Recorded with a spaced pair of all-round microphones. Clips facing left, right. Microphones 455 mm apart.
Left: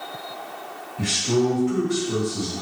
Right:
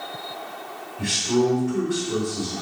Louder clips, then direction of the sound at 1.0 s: Even; 80° left.